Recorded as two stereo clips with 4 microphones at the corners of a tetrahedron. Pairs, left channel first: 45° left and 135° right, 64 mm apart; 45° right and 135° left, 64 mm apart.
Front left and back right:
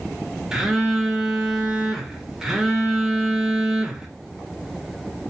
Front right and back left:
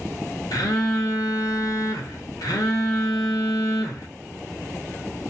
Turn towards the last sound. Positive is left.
turn(degrees=-50)